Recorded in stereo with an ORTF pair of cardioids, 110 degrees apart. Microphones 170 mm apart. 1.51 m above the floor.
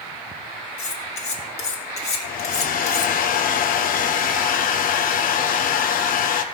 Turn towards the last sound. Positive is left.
turn(degrees=60)